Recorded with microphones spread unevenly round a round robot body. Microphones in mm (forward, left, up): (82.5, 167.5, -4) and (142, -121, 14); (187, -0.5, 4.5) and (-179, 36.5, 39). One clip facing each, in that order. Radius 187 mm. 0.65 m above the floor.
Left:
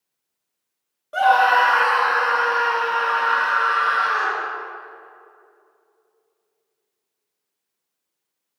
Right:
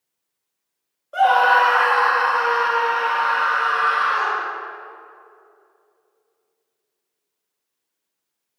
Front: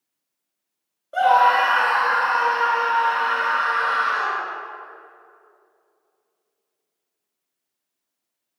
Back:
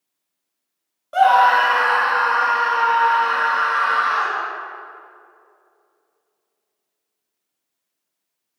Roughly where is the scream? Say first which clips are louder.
Right 1 dB, back 2 dB; behind left.